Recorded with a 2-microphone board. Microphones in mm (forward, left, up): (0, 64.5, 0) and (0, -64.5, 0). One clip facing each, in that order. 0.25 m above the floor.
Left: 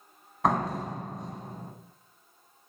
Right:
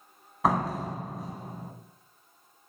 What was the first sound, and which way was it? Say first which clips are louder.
A door slam: even; centre (ahead or behind).